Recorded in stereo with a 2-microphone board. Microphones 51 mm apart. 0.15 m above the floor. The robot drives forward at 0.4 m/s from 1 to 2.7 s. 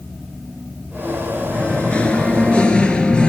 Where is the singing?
20° left (ahead or behind), 1.5 m.